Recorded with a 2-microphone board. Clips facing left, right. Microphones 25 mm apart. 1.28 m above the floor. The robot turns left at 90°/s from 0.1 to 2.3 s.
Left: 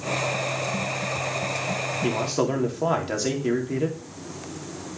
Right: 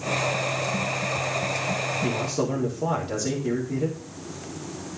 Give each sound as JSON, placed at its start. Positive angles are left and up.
{"t": 2.0, "sound": "a man speaking", "side_deg": 40, "distance_m": 3.5}